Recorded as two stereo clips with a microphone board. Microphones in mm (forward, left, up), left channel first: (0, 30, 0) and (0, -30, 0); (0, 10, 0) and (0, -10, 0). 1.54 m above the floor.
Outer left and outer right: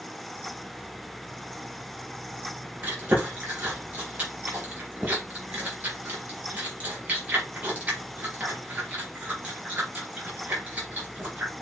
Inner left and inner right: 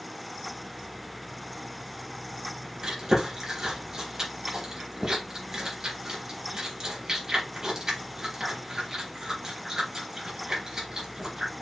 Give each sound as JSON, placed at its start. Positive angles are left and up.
{"t": 2.8, "sound": "chewing", "side_deg": -30, "distance_m": 3.5}